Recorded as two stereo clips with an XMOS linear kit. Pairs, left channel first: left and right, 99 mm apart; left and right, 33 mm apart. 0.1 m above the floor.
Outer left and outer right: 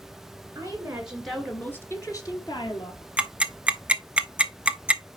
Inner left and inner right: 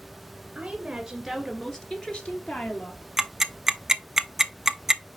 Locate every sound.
0.6 s a woman speaking: 25° right (ahead or behind), 2.0 m; by 3.1 s 55° left (ahead or behind), 3 m
3.2 s ticking: 10° right (ahead or behind), 0.6 m